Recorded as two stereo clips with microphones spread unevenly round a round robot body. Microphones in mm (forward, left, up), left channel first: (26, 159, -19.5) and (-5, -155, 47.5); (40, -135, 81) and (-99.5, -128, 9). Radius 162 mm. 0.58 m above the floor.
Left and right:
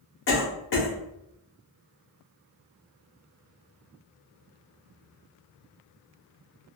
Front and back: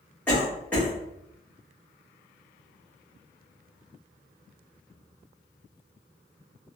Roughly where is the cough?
Left.